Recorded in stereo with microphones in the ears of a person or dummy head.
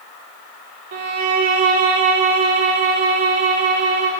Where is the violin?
45° right (ahead or behind), 0.9 m.